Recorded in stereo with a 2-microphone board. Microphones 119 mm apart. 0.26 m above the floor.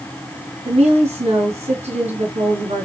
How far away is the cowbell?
No cowbell in this recording.